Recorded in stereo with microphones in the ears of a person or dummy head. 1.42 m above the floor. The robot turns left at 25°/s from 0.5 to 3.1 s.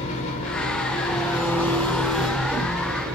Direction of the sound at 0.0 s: 40° left.